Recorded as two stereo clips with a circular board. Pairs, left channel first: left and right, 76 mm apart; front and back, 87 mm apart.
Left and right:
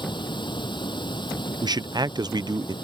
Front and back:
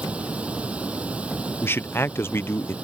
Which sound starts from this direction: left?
Running water, at 0.0 s.